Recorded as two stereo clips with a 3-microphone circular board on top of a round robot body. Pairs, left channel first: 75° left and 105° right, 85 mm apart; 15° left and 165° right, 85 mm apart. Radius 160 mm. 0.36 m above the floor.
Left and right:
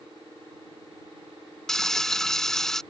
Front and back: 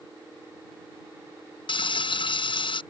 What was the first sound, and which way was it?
Frying, 10° right.